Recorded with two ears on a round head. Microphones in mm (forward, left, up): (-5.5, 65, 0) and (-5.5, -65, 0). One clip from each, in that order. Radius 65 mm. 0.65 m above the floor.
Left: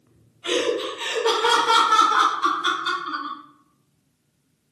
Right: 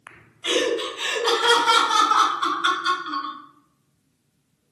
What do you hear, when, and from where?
0.4 s laughter: 25° right (ahead or behind), 0.9 m; by 3.4 s 40° right (ahead or behind), 2 m